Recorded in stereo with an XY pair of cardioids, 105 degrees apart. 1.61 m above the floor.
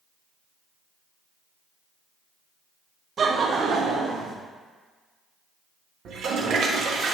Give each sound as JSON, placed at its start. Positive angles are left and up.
{"t": 3.2, "sound": "laughter", "azimuth_deg": -45, "distance_m": 0.9}
{"t": 6.0, "sound": "a toilet flushing", "azimuth_deg": -65, "distance_m": 0.9}